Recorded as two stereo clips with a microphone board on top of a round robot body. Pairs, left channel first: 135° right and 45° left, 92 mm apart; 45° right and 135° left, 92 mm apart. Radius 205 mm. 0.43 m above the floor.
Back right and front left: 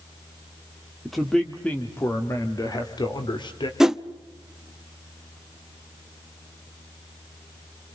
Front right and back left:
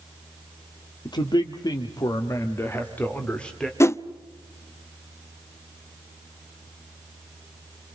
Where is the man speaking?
45° right, 2 m; by 3.7 s 125° right, 2.5 m.